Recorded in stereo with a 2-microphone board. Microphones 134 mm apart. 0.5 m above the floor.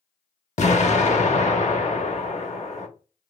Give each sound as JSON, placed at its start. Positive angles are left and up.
{"t": 0.6, "sound": "an explosion", "side_deg": 55, "distance_m": 0.8}